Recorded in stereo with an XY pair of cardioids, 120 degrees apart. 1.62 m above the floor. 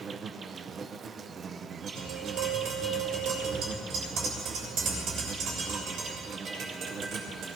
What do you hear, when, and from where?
0.0 s an insect: 40° right, 0.8 m
1.9 s tapping: 70° right, 6 m